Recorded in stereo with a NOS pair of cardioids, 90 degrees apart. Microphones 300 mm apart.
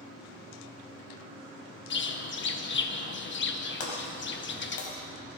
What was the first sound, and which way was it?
A bird, 40° left.